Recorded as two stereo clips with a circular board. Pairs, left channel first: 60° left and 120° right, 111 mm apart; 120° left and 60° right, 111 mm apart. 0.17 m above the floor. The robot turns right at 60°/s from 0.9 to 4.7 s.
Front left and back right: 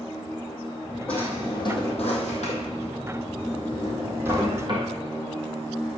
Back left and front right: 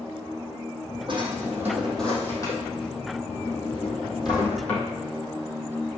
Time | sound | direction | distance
1.1 | a drawer | 20° right | 3 m